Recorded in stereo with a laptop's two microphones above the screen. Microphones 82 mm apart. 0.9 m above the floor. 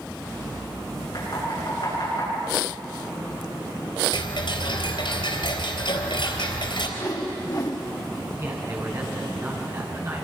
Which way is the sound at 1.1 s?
50° left (ahead or behind).